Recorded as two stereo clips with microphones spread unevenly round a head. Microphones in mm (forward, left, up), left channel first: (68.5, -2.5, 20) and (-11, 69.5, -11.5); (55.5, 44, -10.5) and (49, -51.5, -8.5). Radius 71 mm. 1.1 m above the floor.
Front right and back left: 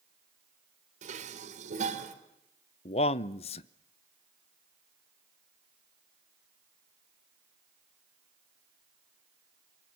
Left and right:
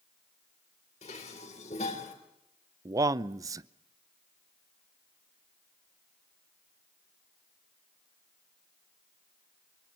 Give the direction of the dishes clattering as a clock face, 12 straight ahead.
8 o'clock.